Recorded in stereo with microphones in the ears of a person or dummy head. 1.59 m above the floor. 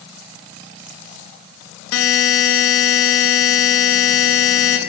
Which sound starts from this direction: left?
A buzzer, at 1.9 s.